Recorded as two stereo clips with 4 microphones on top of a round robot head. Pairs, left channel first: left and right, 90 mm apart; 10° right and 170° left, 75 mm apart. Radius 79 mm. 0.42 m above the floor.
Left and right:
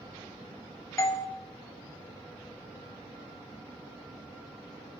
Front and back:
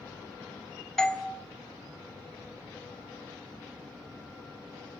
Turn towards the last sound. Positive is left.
turn(degrees=65)